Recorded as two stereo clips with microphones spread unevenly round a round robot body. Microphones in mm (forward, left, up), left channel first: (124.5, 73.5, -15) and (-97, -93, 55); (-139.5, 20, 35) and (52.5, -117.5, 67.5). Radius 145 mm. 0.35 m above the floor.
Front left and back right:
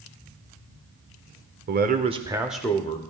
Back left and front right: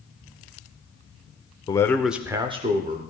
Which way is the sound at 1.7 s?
Straight behind.